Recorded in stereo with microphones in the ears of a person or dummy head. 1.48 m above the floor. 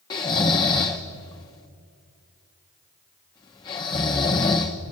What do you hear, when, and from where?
0.1 s snoring: 20° left (ahead or behind), 1.0 m